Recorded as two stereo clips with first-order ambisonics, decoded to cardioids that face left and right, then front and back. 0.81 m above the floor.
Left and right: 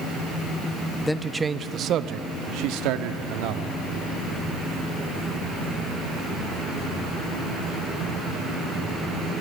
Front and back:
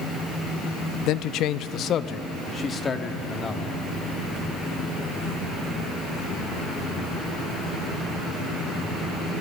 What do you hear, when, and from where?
1.1 s a man speaking: 10° left, 0.9 m; by 3.7 s 80° right, 2 m